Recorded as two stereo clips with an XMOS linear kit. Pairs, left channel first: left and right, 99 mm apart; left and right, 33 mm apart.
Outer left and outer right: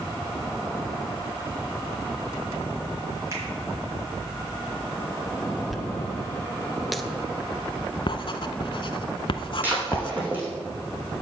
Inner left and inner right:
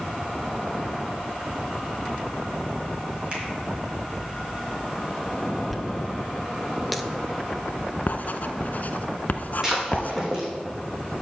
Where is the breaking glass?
20° right (ahead or behind), 3 m.